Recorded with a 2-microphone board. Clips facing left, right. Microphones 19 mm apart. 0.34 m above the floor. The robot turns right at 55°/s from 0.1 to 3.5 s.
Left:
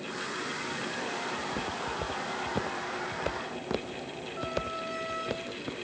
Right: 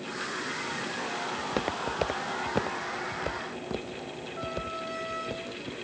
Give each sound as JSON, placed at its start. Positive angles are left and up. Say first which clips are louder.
{"t": 1.4, "sound": "footsteps", "louder": "right 3 dB", "side_deg": -75}